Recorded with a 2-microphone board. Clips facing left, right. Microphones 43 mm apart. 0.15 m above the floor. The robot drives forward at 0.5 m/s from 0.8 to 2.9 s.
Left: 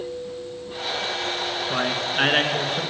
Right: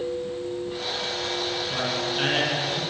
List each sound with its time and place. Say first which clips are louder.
1.7 s a man speaking: left 5 dB; 40° left (ahead or behind), 1.6 m; by 2.8 s 35° left (ahead or behind), 1.7 m